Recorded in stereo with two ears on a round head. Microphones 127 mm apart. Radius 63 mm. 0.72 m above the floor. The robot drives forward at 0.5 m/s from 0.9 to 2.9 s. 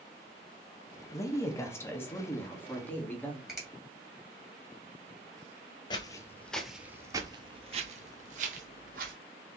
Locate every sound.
1.1 s a woman speaking: 20° left (ahead or behind), 0.8 m; by 3.4 s 10° left (ahead or behind), 1.3 m
3.5 s a finger snap: centre (ahead or behind), 2.5 m
5.9 s footsteps: 30° left (ahead or behind), 0.8 m; by 9.1 s 65° right (ahead or behind), 1.5 m